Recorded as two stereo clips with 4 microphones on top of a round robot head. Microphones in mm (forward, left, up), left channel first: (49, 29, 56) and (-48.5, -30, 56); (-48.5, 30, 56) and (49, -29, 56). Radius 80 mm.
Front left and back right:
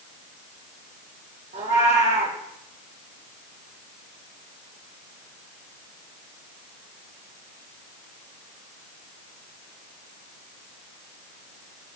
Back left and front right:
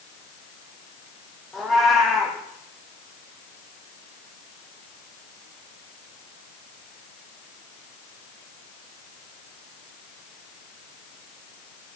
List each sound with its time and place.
1.5 s a cat meowing: 120° right, 3.5 m